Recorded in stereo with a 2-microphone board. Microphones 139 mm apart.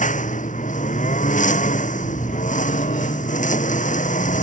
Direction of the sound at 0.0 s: 65° left (ahead or behind).